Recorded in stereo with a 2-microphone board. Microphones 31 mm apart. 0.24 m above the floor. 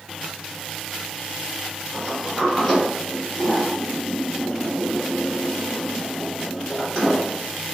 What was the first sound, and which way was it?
A sliding door, 15° left (ahead or behind).